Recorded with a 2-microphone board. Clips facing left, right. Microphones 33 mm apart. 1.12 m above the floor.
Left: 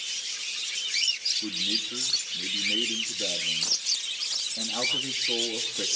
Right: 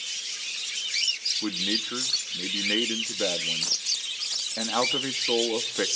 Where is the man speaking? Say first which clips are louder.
Right 3 dB; 70° right (ahead or behind), 1.7 m.